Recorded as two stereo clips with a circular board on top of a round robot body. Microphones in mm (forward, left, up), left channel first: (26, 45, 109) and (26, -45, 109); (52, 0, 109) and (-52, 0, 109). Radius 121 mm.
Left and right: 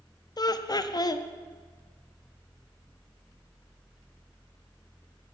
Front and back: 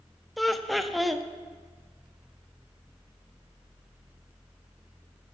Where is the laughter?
90° left, 0.8 m.